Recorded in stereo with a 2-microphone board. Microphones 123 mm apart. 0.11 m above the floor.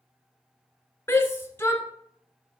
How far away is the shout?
About 1.1 m.